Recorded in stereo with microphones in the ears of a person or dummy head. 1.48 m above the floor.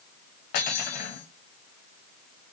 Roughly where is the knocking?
No knocking in this recording.